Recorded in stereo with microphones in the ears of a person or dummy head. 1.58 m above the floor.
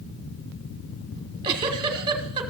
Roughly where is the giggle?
Right.